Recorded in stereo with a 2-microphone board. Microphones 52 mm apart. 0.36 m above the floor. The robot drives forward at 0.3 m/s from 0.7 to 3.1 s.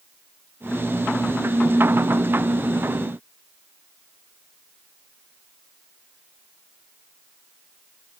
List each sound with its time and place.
Only background noise.